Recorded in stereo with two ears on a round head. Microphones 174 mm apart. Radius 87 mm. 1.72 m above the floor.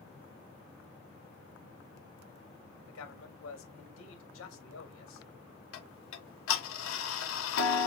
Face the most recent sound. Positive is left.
turn(degrees=75)  # may be behind; listen again after turning